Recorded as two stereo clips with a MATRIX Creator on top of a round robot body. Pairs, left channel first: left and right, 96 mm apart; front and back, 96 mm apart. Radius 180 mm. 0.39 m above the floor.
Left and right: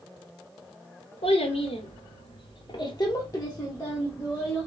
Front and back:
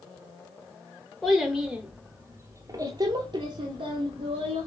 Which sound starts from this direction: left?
A child speaking, at 1.2 s.